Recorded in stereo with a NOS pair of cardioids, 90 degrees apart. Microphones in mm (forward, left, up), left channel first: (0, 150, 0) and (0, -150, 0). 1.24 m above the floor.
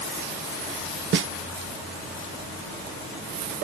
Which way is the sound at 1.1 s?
45° right.